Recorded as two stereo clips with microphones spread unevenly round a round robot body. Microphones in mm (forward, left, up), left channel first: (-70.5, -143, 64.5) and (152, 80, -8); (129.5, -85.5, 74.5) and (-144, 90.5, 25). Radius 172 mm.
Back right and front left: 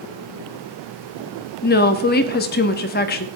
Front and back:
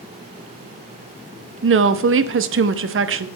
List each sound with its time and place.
1.6 s a woman speaking: 160° left, 0.9 m